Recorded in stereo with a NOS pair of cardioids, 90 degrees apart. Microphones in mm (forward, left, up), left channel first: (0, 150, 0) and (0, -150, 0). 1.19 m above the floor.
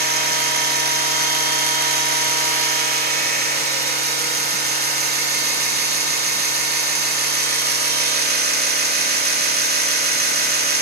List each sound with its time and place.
0.0 s a machine running: 30° right, 3 m